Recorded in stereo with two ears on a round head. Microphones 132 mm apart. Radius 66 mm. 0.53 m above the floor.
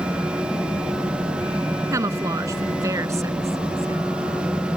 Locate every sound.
1.9 s a woman speaking: 20° right (ahead or behind)